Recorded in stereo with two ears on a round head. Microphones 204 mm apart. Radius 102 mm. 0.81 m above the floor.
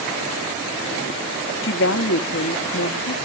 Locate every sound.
1.6 s a woman speaking: 55° left (ahead or behind), 1.2 m